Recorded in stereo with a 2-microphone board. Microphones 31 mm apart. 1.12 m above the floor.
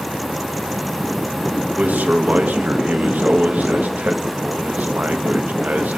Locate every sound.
1.8 s a man speaking: 70° right (ahead or behind), 1.5 m